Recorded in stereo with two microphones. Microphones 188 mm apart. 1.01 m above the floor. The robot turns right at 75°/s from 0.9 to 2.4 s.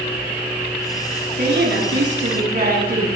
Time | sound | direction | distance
1.4 | a woman speaking | 130° right | 7.5 m